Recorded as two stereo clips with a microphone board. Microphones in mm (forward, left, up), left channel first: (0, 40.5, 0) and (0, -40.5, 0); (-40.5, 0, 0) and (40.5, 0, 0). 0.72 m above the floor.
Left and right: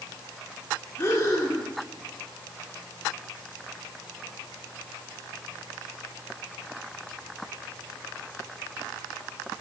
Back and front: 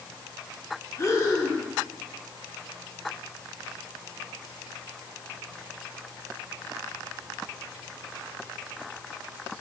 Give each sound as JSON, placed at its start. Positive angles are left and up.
{"t": 1.0, "sound": "breathing", "azimuth_deg": 140, "distance_m": 1.6}